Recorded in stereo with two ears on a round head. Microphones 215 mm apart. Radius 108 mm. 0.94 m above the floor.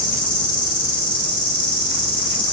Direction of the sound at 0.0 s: 20° left (ahead or behind).